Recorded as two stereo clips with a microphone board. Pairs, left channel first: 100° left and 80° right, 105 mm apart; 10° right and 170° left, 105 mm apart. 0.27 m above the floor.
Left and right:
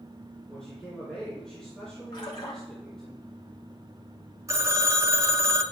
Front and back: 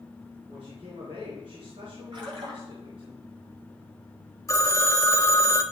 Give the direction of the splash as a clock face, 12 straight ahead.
7 o'clock.